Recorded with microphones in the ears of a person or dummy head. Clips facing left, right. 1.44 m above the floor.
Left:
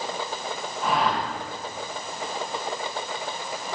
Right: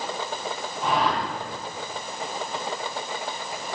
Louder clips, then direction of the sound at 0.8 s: Even; centre (ahead or behind).